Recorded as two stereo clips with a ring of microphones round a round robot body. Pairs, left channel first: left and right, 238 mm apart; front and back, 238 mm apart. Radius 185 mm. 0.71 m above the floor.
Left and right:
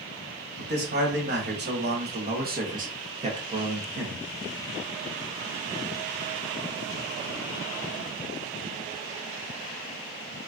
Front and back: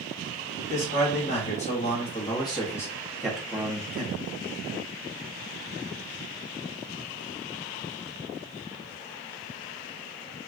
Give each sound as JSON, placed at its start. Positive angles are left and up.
{"t": 0.6, "sound": "a man speaking", "azimuth_deg": -50, "distance_m": 1.9}